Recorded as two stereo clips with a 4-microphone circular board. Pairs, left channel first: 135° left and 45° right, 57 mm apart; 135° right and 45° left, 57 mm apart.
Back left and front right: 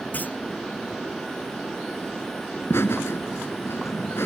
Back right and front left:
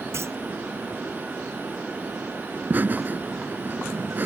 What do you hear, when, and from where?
0.1 s a clunk: 75° left
2.5 s laughter: 95° left